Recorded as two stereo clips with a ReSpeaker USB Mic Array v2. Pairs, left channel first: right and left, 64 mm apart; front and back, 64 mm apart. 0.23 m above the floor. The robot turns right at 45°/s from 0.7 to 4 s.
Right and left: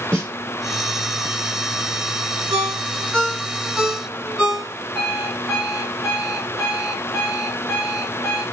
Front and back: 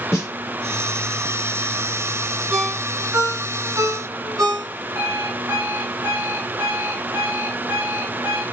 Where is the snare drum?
45° left, 3.5 m.